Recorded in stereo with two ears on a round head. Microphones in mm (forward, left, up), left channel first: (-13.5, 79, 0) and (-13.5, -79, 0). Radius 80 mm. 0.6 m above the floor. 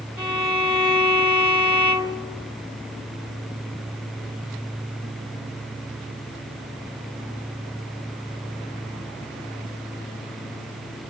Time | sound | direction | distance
0.2 | a violin | 10° right (ahead or behind) | 1.1 m